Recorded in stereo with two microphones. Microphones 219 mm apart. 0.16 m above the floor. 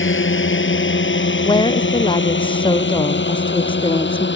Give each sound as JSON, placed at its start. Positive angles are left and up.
{"t": 0.0, "sound": "a drone", "side_deg": 60}
{"t": 1.4, "sound": "a woman speaking", "side_deg": 20}